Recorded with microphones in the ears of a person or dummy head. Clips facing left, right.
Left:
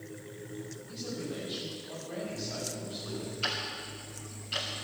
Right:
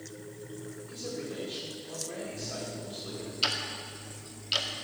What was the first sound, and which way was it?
A man speaking, 30° right (ahead or behind).